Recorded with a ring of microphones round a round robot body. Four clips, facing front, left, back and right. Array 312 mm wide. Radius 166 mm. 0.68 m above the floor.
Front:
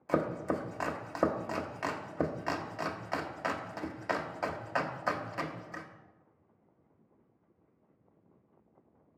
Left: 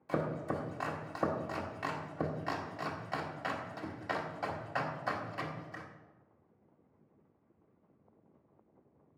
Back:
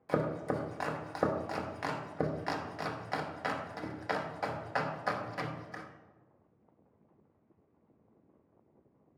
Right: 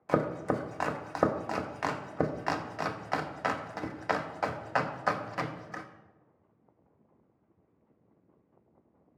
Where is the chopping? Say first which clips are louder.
Right 6 dB, front 1 dB; 85° right, 1.1 m.